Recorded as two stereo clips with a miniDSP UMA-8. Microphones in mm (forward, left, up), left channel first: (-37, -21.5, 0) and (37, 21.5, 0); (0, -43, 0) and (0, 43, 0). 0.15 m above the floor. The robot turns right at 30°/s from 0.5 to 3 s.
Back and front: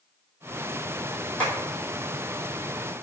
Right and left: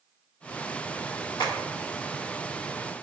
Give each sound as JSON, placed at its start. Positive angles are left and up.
{"t": 1.4, "sound": "tapping", "azimuth_deg": -80, "distance_m": 1.3}